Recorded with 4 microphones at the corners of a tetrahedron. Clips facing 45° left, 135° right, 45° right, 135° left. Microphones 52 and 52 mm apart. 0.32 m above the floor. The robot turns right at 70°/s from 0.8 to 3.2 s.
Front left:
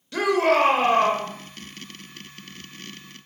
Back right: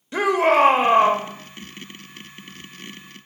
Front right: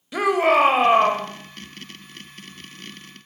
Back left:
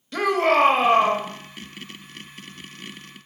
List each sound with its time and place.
0.1 s a shout: 110° right, 1.0 m; by 1.3 s 75° right, 1.0 m